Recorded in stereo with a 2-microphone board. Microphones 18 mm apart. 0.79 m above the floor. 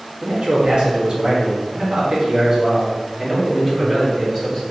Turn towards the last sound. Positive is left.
turn(degrees=-5)  # may be behind; listen again after turning